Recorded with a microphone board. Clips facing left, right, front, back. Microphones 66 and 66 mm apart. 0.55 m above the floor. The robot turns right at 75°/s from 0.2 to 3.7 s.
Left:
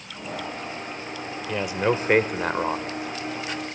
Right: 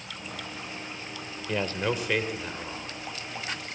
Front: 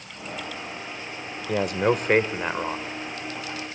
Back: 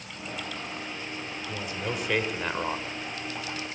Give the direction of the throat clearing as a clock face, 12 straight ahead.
No throat clearing in this recording.